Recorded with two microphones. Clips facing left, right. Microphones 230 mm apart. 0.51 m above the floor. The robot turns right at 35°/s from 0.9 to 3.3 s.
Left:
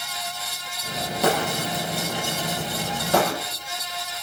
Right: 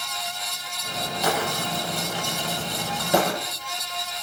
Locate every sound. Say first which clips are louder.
1.2 s breaking glass: left 4 dB; 55° left (ahead or behind), 8.5 m; by 3.3 s 20° right (ahead or behind), 8.5 m